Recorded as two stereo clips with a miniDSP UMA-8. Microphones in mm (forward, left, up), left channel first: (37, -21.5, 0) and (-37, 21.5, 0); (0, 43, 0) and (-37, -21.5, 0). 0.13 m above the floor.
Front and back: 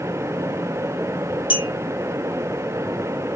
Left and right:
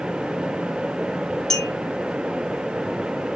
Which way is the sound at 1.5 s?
25° right.